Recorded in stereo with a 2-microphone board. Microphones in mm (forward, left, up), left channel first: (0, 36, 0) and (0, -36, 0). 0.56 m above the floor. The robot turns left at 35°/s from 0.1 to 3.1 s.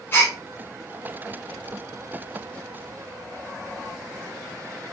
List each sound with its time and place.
0.1 s a gasp: 30° left (ahead or behind), 1.5 m; by 0.3 s 40° left (ahead or behind), 1.5 m